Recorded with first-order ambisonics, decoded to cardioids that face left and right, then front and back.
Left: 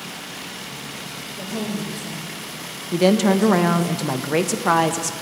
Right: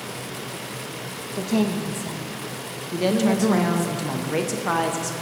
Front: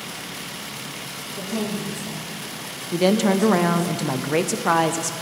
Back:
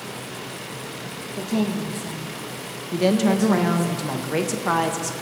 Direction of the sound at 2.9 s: 55° left.